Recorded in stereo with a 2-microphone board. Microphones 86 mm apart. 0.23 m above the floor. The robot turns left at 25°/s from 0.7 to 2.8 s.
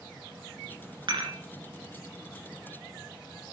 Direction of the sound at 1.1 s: 60° right (ahead or behind).